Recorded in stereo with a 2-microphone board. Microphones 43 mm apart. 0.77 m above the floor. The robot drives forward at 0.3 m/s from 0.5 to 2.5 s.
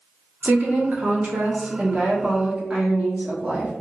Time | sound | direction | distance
0.4 | a woman speaking | 45° right (ahead or behind) | 0.7 m